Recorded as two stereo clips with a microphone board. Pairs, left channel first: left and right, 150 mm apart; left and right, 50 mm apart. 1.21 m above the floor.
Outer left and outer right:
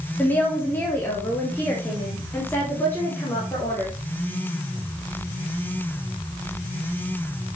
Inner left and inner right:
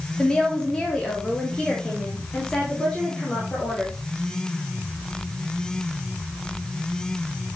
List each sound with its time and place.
0.2 s a woman speaking: 15° left (ahead or behind), 1.3 m